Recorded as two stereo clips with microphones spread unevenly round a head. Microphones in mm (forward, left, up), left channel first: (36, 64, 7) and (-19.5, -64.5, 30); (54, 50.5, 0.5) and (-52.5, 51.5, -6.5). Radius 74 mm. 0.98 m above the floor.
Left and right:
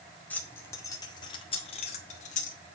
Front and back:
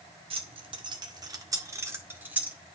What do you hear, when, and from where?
0.3 s keys jangling: 145° left, 1.9 m; by 2.6 s 100° left, 2 m